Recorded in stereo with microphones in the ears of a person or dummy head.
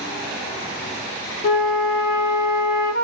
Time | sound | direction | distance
1.4 | a flute | 45° left (ahead or behind) | 0.6 m